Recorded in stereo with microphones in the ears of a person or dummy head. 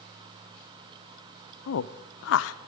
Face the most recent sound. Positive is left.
turn(degrees=75)  # may be behind; listen again after turning